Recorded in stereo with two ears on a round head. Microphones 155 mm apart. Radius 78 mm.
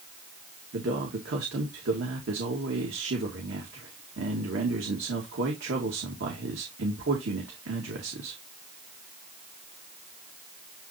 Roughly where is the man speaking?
Right.